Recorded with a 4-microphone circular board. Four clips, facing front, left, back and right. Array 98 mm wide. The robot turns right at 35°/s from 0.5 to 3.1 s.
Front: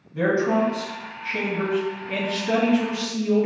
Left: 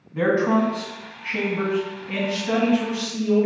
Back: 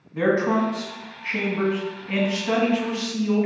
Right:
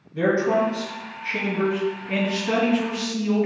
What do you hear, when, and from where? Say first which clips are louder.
0.1 s a man speaking: left 1 dB, even; 120° left, 1.0 m; by 3.5 s 150° right, 1.0 m